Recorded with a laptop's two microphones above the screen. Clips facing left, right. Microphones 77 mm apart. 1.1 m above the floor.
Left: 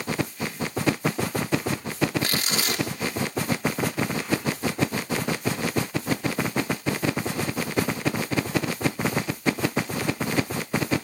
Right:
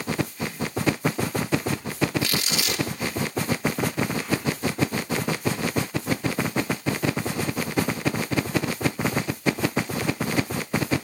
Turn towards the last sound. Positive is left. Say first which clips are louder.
# even
turn(degrees=35)  # may be behind; listen again after turning